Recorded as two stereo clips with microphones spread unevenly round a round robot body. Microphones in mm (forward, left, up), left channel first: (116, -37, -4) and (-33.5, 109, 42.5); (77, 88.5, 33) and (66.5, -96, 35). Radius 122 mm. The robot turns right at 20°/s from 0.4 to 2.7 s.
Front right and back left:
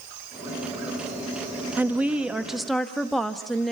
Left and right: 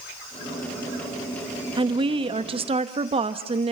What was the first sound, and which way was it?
A woman speaking, 130° right.